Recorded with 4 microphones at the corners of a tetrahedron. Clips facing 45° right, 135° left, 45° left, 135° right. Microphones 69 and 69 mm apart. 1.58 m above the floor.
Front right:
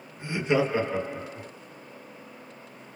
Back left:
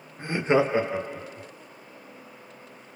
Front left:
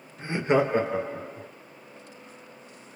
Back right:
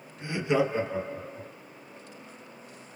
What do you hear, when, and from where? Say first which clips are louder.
0.2 s laughter: back left 3 dB, front left 3 dB; 100° left, 0.7 m; by 1.5 s 25° left, 0.7 m